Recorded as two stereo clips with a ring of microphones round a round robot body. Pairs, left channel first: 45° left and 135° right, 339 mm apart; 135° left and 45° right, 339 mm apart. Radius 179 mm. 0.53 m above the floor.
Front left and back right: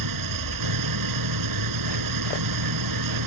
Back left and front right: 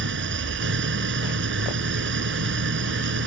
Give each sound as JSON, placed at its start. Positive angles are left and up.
{"t": 0.0, "sound": "an engine running", "azimuth_deg": -105}